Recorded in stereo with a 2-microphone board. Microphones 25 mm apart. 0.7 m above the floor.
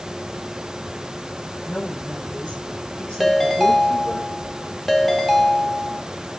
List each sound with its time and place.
1.6 s a woman speaking: 55° left (ahead or behind), 6 m; by 4.2 s 50° left (ahead or behind), 8.5 m
3.2 s a ringtone: 5° left (ahead or behind), 1.4 m